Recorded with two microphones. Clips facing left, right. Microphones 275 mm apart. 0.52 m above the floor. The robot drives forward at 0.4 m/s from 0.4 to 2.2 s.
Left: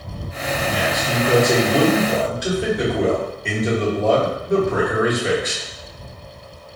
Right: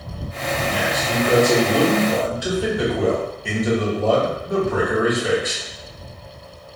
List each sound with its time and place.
0.7 s a man speaking: 25° left (ahead or behind), 1.3 m; by 5.6 s 20° left (ahead or behind), 1.6 m